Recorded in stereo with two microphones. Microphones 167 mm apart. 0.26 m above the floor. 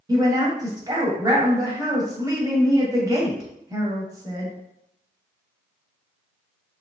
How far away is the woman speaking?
About 1.1 m.